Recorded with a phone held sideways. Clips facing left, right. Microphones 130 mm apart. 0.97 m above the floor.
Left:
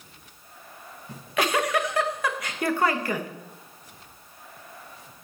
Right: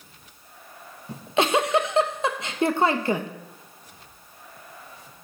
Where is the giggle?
25° right (ahead or behind), 0.9 m.